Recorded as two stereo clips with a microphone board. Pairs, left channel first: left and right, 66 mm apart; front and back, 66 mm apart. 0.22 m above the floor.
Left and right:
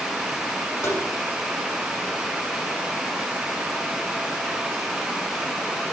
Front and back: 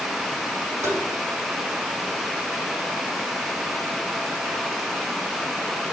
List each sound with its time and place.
0.8 s tapping: 135° left, 5 m